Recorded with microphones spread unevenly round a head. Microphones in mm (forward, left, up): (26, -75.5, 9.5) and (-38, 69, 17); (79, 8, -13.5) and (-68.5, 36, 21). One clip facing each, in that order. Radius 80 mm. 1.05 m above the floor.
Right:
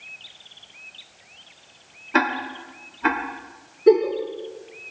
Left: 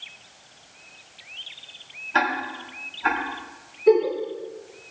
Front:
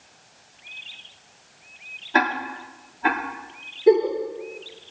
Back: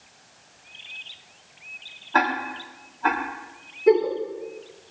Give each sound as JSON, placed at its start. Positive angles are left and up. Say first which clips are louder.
{"t": 2.1, "sound": "ticking", "louder": "right 2 dB, even", "azimuth_deg": -85, "distance_m": 1.8}
{"t": 3.9, "sound": "a giggle", "louder": "right 2 dB, front 2 dB", "azimuth_deg": -95, "distance_m": 6.0}